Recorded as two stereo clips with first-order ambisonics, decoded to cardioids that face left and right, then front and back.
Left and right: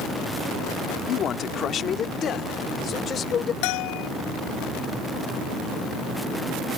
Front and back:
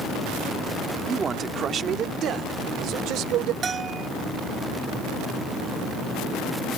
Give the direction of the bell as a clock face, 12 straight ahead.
8 o'clock.